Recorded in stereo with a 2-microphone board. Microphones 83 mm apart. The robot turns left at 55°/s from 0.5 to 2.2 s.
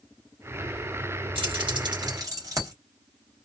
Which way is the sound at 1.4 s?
80° right.